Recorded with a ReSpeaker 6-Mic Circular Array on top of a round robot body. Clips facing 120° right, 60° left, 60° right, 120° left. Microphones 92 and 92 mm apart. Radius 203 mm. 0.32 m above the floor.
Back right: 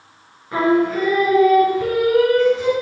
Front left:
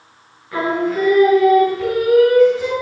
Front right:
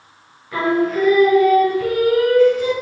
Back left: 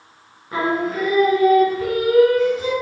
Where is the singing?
175° left, 4.5 m.